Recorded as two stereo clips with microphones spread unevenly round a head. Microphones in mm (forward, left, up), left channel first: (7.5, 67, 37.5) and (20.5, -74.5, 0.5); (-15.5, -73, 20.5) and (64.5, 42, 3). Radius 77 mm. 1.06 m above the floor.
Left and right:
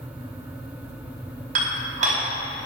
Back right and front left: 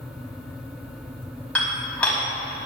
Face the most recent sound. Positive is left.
turn(degrees=-45)